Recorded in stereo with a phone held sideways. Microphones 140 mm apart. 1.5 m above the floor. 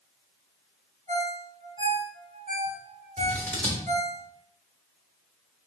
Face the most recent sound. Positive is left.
turn(degrees=10)  # may be behind; listen again after turning